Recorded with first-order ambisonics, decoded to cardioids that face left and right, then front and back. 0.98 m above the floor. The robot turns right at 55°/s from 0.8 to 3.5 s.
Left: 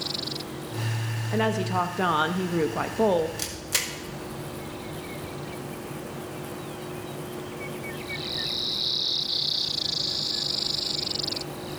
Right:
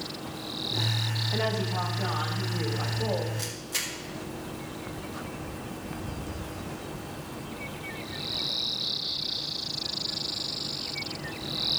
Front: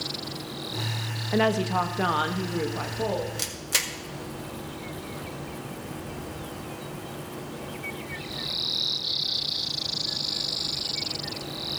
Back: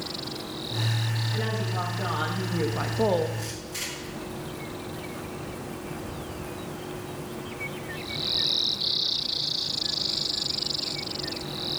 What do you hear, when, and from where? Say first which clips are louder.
1.3 s a woman speaking: left 7 dB, front 10 dB; 15° left, 1.2 m; by 3.3 s 125° left, 1.2 m
3.4 s a camera shutter: left 3 dB, front 6 dB; 25° left, 1.5 m; by 3.9 s 30° left, 1.5 m